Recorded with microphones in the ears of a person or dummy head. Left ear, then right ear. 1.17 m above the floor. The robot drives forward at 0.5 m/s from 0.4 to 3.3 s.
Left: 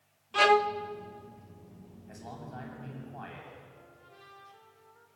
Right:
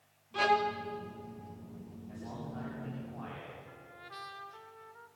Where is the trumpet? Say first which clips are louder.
Right 6 dB; 60° right (ahead or behind), 2 m.